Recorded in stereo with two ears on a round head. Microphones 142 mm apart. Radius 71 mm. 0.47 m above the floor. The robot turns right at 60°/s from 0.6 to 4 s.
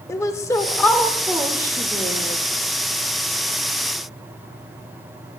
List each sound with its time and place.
0.1 s a woman speaking: 150° left, 1.0 m; by 2.4 s 100° right, 1.0 m